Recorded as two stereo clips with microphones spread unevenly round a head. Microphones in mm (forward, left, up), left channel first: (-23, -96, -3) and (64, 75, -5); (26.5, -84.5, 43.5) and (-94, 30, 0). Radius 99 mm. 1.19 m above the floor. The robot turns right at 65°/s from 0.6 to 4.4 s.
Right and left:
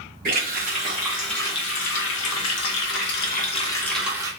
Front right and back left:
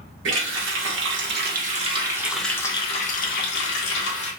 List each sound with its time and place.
0.2 s a running tap: 115° left, 0.8 m; by 4.3 s 5° right, 0.8 m